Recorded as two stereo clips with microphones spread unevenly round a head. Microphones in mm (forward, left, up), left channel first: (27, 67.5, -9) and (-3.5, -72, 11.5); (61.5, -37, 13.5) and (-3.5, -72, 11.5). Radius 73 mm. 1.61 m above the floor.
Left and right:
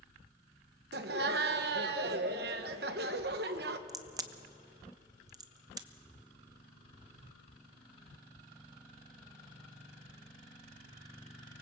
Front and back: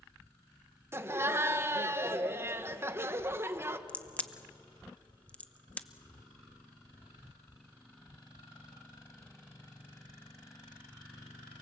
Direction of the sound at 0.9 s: 95° right.